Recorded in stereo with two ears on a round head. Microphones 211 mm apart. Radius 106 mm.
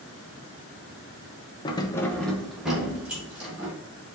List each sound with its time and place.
1.6 s keys jangling: 20° left (ahead or behind), 0.5 m; by 3.7 s 5° right (ahead or behind), 2.5 m